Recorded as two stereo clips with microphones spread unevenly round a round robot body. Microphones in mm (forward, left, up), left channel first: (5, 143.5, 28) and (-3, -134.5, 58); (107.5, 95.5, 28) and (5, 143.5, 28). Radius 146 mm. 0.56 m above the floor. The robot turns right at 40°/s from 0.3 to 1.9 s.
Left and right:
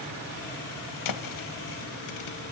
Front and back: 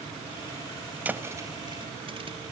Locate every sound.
1.1 s a thud: 80° left, 1.6 m; by 2.4 s 110° left, 1.6 m